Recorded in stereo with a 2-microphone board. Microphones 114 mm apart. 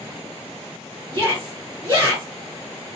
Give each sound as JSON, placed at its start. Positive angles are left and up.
{"t": 1.1, "sound": "a shout", "side_deg": -25, "distance_m": 1.7}